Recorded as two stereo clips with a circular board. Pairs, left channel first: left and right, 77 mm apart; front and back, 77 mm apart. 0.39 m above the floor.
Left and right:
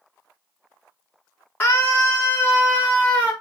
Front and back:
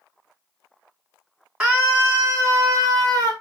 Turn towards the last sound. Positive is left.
turn(degrees=180)